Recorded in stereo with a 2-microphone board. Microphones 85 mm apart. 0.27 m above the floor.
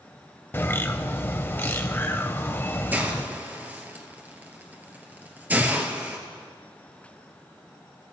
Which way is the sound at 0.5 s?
25° left (ahead or behind).